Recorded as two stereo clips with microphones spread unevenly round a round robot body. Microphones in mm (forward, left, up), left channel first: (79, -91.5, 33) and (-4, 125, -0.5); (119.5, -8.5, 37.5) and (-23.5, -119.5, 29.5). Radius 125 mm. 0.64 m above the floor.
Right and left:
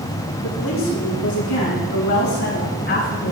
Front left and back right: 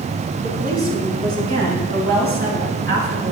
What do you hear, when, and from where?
0.4 s a woman speaking: 100° right, 5 m; by 3.3 s 120° right, 3.5 m